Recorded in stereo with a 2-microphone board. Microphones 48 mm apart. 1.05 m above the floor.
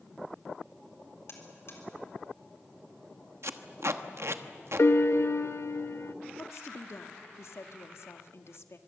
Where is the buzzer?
65° left (ahead or behind), 3.5 m.